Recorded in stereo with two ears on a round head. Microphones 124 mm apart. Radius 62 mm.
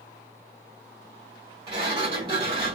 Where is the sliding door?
40° right (ahead or behind), 2.5 m.